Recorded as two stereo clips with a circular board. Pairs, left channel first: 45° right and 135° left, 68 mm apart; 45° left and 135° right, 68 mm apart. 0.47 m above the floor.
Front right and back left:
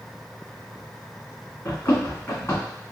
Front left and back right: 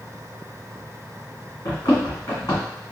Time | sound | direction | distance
1.6 | running footsteps | 10° left | 1.9 m